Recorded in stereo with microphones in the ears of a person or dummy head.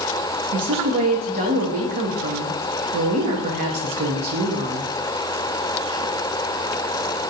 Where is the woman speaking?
40° right (ahead or behind), 0.7 m.